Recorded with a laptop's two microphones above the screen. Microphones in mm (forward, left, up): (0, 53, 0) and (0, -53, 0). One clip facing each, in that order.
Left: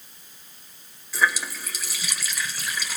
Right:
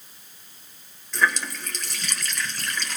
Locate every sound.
1.1 s a running tap: 5° left (ahead or behind), 2.5 m